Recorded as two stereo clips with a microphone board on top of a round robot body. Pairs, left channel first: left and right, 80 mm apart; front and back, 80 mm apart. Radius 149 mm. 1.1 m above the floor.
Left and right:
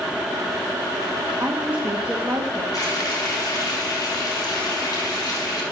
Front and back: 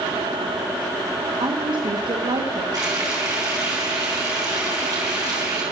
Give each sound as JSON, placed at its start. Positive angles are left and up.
{"t": 1.4, "sound": "a woman speaking", "azimuth_deg": -160, "distance_m": 1.5}
{"t": 2.7, "sound": "frying", "azimuth_deg": 135, "distance_m": 5.0}